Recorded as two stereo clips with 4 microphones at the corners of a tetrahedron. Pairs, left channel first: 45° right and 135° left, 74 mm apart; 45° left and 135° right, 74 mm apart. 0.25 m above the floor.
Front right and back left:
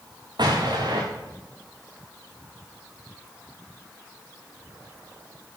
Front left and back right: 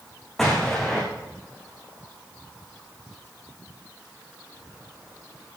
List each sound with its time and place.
0.4 s an explosion: 135° left, 4.5 m